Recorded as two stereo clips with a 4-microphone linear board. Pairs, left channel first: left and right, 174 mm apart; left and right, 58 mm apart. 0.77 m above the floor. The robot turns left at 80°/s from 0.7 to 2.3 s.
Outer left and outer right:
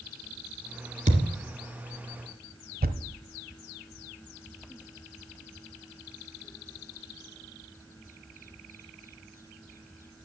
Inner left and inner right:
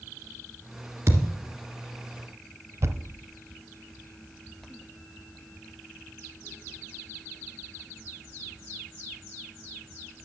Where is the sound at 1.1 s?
45° right (ahead or behind), 2 m; by 1.3 s 25° right (ahead or behind), 2 m.